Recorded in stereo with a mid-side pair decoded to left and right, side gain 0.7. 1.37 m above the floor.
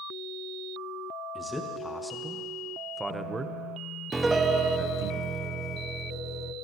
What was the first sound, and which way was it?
A man speaking, 10° left.